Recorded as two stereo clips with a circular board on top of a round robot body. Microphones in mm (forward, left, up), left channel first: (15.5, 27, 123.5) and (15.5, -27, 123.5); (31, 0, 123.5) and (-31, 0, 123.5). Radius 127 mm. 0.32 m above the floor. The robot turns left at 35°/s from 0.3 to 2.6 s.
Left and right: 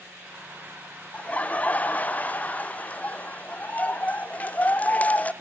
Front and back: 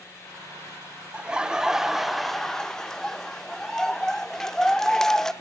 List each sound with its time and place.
1.1 s laughter: 125° left, 0.9 m; by 5.3 s 75° left, 0.9 m